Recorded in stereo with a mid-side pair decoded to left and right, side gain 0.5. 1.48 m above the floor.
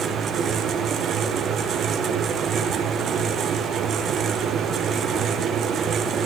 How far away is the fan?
About 1.1 m.